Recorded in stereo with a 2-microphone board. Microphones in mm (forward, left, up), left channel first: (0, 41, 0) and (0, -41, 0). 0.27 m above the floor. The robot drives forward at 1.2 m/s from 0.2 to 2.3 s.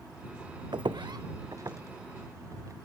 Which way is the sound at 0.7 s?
70° right (ahead or behind).